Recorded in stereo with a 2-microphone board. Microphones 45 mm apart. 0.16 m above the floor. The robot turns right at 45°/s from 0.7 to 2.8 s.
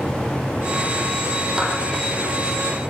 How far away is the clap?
About 6 m.